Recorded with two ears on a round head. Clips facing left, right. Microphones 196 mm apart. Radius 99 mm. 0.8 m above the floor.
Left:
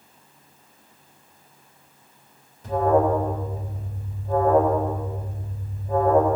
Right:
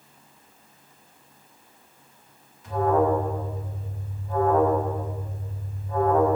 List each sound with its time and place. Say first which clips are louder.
2.6 s an alarm: left 2 dB; 35° left (ahead or behind), 3.5 m